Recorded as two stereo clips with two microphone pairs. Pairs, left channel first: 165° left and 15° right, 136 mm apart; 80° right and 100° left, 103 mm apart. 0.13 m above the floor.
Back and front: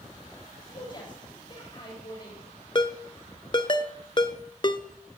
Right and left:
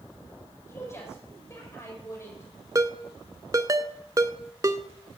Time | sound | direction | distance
0.7 | a woman speaking | 145° right | 7.5 m
2.8 | a ringtone | 130° left | 0.7 m